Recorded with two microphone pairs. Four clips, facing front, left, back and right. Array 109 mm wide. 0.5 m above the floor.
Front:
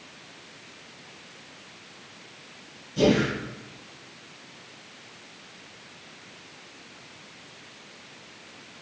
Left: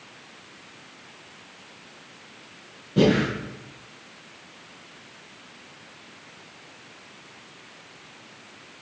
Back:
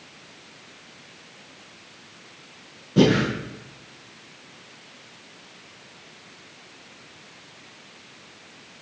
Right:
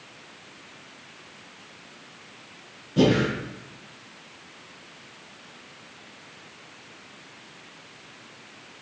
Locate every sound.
3.0 s breathing: 160° left, 6.5 m